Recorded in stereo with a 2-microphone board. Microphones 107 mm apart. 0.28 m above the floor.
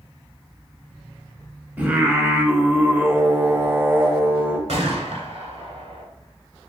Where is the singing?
15° right (ahead or behind), 0.8 m.